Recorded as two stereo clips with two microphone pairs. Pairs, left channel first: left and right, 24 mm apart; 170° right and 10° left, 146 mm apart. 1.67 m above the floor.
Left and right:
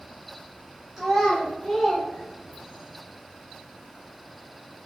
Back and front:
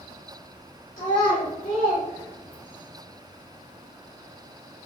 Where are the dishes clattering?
I don't hear dishes clattering.